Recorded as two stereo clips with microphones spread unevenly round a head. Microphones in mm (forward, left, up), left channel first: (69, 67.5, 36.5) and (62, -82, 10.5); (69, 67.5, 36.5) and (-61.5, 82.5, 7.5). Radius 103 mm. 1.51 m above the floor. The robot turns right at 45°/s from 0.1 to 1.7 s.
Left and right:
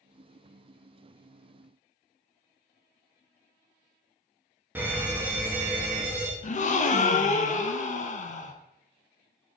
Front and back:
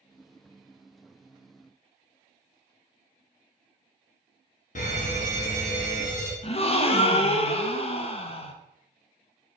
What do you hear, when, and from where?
4.8 s a fire alarm: 30° right, 0.9 m
6.4 s a gasp: 45° left, 0.5 m